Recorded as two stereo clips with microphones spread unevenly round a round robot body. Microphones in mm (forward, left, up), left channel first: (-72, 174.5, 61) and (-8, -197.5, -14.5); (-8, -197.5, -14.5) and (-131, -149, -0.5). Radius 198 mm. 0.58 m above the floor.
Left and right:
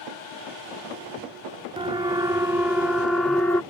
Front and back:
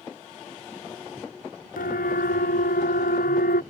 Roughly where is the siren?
Ahead.